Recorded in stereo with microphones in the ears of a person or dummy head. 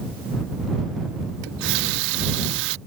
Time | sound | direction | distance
1.4 | a running tap | 65° right (ahead or behind) | ?